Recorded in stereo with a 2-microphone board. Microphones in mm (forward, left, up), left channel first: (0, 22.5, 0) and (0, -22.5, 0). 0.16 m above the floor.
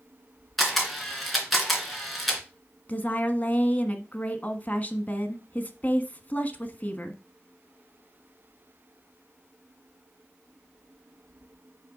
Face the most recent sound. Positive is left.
turn(degrees=35)  # may be behind; listen again after turning